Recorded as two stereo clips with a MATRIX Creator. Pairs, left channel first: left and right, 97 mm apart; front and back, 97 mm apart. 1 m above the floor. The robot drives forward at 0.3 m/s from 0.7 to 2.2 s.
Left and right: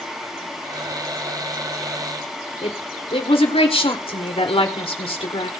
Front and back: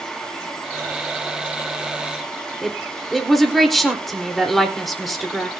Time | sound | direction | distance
2.6 | a woman speaking | 90° left | 4 m